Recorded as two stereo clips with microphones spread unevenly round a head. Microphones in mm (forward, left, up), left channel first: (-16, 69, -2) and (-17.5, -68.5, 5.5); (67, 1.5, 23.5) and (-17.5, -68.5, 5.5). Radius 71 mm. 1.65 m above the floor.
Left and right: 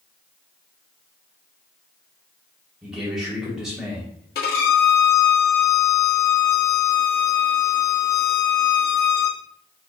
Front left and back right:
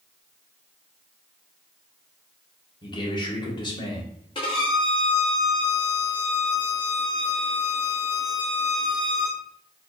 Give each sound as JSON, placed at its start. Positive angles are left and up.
{"t": 2.8, "sound": "a man speaking", "azimuth_deg": -5, "distance_m": 1.5}
{"t": 4.3, "sound": "a violin", "azimuth_deg": 85, "distance_m": 0.9}